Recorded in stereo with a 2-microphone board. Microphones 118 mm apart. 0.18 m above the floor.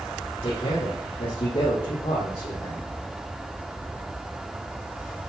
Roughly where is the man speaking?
Left.